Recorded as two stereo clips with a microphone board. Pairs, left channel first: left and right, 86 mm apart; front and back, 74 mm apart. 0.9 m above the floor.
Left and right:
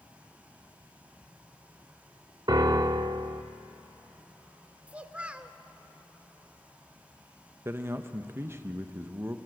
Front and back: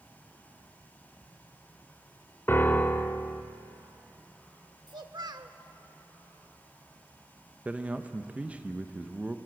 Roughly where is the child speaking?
Behind.